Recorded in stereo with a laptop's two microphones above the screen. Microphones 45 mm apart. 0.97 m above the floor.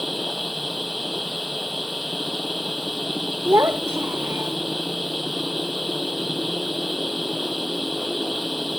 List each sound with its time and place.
0.0 s a machine running: 5° right (ahead or behind)
3.5 s a child speaking: 65° right (ahead or behind)